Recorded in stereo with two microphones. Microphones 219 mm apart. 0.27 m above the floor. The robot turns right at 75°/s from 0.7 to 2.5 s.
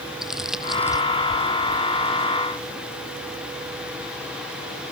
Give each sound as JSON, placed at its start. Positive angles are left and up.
{"t": 0.2, "sound": "crumpling", "side_deg": 0}